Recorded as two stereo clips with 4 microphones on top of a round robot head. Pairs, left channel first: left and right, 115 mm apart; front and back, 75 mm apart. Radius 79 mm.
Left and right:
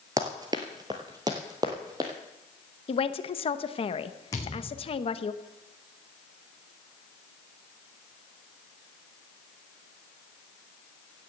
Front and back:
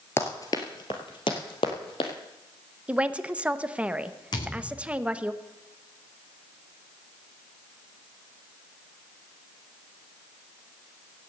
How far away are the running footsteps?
About 0.9 m.